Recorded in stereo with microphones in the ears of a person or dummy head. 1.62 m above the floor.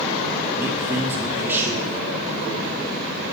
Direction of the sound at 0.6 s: 10° right (ahead or behind).